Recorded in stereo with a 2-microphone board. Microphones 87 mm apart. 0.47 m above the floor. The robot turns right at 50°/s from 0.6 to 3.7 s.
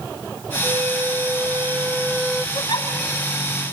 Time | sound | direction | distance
0.6 | a flute | 90° right | 1.1 m
2.5 | a giggle | 40° left (ahead or behind) | 3 m